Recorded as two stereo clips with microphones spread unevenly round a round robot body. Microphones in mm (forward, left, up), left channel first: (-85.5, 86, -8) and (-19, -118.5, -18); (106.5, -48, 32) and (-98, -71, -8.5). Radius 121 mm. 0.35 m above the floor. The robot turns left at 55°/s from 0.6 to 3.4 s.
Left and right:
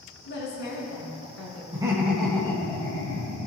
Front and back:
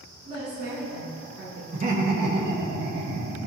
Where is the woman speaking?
140° left, 3.5 m; by 1.6 s 80° left, 3.5 m.